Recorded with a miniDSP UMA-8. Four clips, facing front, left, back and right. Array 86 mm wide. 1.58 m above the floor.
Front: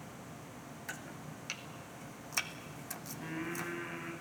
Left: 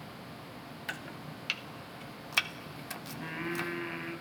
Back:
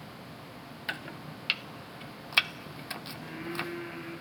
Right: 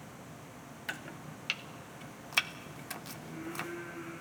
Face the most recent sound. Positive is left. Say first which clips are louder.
# left 6 dB, back 1 dB
turn(degrees=85)